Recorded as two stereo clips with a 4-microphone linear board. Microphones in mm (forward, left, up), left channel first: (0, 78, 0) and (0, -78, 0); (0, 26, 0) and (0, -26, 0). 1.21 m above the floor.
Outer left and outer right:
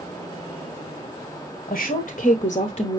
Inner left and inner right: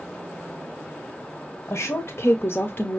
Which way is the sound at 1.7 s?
55° left (ahead or behind).